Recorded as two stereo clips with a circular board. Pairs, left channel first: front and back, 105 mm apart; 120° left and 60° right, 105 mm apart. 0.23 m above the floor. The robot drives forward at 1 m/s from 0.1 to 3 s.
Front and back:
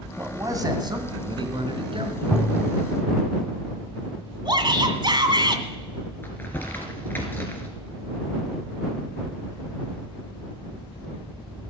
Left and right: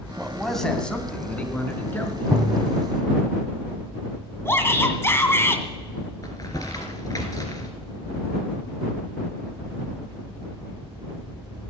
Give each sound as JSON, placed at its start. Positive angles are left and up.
{"t": 0.2, "sound": "a man speaking", "azimuth_deg": -145, "distance_m": 1.5}
{"t": 2.3, "sound": "tapping", "azimuth_deg": -75, "distance_m": 0.8}
{"t": 4.5, "sound": "a shout", "azimuth_deg": 175, "distance_m": 2.0}
{"t": 6.2, "sound": "crumpling", "azimuth_deg": 70, "distance_m": 2.5}